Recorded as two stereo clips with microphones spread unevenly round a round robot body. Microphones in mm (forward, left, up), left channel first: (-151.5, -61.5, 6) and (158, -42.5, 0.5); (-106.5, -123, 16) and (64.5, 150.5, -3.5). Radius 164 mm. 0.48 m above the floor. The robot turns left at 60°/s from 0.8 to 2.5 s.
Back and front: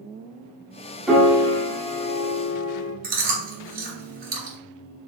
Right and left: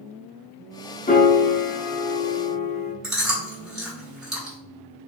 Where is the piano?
80° right, 0.9 m; by 2.9 s 165° right, 0.9 m.